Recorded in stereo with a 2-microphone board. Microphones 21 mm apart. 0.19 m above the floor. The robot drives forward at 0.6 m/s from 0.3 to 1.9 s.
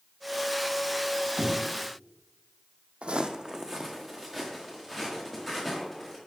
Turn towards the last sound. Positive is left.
turn(degrees=-5)  # may be behind; listen again after turning